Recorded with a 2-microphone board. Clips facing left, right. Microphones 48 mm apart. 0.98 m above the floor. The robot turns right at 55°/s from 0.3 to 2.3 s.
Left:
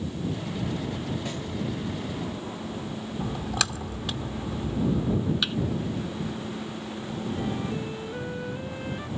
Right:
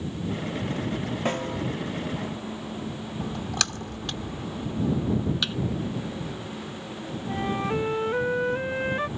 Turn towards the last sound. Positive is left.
turn(degrees=-60)  # may be behind; listen again after turning